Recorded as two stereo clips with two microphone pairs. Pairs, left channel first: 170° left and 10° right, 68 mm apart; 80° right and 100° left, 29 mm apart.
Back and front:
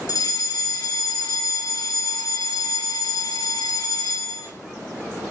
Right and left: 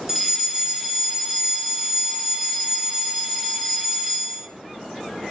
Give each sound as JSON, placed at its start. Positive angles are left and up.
{"t": 0.1, "sound": "a fire alarm", "azimuth_deg": 180, "distance_m": 3.5}